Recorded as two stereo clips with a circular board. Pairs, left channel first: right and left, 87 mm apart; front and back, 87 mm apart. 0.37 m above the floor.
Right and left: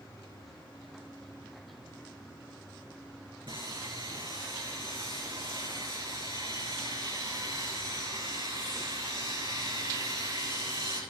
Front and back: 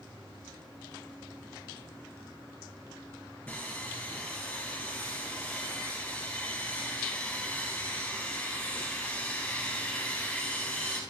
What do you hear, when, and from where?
3.5 s sawing: 65° left, 4.5 m